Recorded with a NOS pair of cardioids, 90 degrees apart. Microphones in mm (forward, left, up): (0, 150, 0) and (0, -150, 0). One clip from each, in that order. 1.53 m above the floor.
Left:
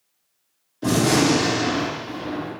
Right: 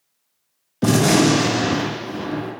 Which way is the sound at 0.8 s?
65° right.